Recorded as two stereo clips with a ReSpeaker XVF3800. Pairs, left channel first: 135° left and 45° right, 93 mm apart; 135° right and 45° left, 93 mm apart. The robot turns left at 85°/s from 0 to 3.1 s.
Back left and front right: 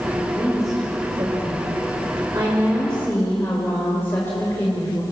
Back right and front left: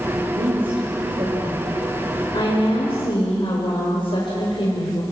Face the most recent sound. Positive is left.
turn(degrees=-160)